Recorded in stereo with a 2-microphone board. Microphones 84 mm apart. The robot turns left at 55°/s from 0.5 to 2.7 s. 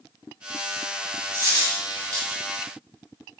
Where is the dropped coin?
50° left (ahead or behind), 1.5 m; by 2.4 s centre (ahead or behind), 1.5 m.